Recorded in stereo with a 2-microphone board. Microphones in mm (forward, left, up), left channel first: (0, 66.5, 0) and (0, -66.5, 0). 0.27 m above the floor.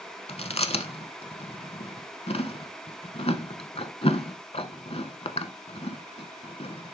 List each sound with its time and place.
0.3 s chewing: 55° left (ahead or behind), 0.7 m